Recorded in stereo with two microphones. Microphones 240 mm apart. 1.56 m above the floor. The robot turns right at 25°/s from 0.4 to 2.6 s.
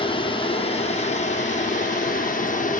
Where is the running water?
40° left, 1.2 m; by 2.8 s 95° left, 1.2 m.